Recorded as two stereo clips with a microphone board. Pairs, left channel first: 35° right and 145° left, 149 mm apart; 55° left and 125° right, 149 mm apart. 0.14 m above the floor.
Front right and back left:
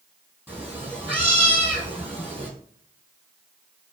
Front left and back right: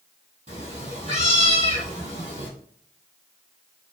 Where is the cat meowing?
165° right, 1.8 m.